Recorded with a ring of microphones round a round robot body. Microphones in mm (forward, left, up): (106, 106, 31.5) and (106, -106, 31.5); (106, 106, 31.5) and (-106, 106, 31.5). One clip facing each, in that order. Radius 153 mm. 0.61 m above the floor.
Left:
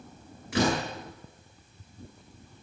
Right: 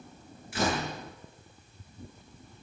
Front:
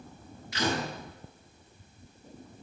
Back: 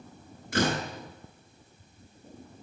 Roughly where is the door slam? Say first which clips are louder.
Left 4 dB, back 3 dB; behind left.